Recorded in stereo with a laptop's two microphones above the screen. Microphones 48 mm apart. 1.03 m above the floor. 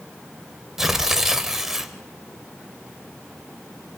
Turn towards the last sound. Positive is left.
turn(degrees=-10)  # may be behind; listen again after turning